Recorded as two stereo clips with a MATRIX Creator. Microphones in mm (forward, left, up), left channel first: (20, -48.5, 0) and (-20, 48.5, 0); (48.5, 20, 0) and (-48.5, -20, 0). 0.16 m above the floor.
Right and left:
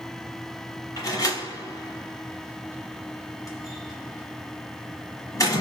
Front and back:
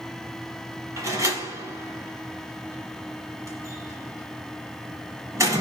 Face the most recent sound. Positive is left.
turn(degrees=-110)